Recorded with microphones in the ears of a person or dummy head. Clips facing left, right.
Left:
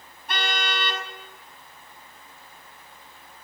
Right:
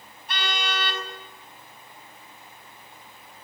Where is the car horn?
50° left (ahead or behind), 5.5 m.